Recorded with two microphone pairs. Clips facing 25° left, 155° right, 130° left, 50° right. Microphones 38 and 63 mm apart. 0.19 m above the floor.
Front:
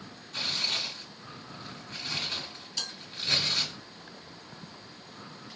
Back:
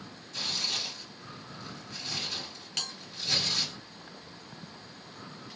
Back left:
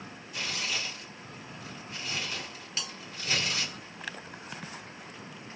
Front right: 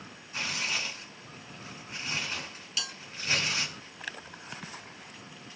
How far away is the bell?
About 1.6 m.